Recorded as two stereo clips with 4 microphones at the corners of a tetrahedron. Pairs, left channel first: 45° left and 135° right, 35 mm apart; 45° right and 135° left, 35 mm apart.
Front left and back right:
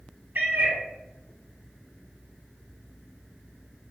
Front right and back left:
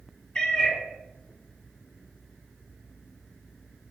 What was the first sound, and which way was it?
A cat meowing, 110° right.